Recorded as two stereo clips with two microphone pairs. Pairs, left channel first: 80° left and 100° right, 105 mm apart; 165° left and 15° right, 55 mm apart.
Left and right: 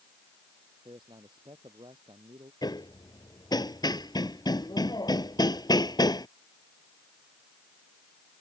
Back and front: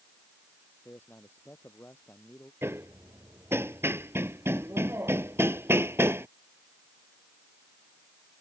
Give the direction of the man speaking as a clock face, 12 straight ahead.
5 o'clock.